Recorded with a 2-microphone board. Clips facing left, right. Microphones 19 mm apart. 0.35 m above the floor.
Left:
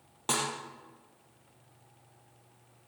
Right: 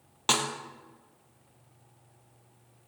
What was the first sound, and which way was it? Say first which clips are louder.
A snare drum: right 5 dB; 60° right (ahead or behind).